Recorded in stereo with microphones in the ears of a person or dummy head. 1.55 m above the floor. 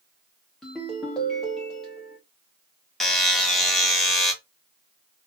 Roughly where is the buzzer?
Centre.